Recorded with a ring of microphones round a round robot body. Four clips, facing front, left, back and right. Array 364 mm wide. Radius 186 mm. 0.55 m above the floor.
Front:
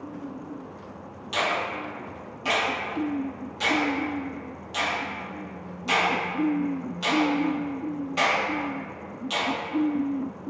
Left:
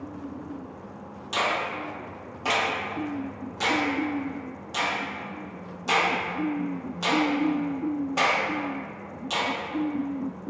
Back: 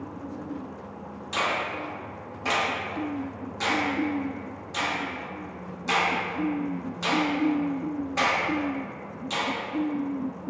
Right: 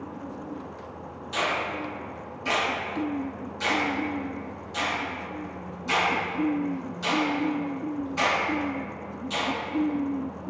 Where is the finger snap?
105° left, 1.4 m.